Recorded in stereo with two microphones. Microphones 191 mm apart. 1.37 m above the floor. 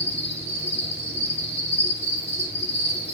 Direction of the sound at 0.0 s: 35° left (ahead or behind).